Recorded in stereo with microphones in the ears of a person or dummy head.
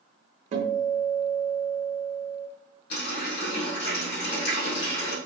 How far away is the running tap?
About 1.7 m.